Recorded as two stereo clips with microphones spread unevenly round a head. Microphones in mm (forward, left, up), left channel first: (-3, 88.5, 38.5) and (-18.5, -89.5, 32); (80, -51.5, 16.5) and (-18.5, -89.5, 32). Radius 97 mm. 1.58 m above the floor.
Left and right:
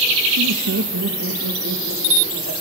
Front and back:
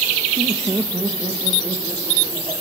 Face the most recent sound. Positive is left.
turn(degrees=-90)